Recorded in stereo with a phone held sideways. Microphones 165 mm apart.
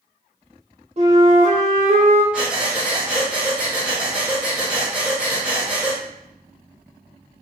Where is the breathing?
5° right (ahead or behind), 0.8 m.